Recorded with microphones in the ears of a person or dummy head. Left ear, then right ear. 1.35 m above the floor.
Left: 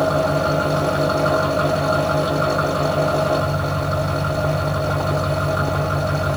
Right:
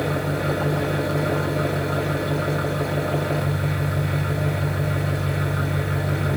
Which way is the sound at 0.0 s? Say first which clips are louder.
Left 7 dB; 25° left (ahead or behind).